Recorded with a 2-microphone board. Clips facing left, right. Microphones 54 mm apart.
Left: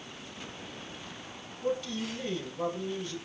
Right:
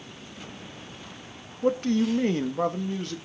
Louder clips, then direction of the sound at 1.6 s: Right 9 dB; 50° right (ahead or behind).